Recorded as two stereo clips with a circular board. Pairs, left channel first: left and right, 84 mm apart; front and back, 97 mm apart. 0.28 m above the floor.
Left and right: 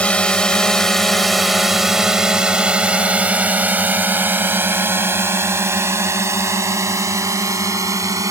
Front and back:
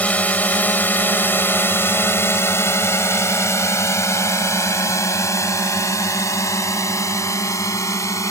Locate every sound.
0.0 s a drone: 45° left; by 8.3 s 50° right